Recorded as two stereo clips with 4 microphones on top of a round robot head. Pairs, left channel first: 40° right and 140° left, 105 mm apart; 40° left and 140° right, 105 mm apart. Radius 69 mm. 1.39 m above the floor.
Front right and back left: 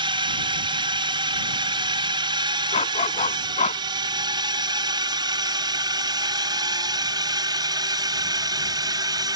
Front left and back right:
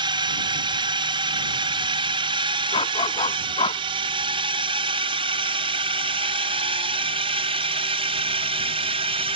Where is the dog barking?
5° right.